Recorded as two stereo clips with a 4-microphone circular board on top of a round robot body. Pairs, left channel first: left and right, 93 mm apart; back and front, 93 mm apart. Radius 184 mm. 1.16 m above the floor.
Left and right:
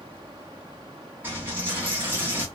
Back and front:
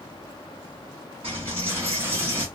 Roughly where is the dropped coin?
Ahead.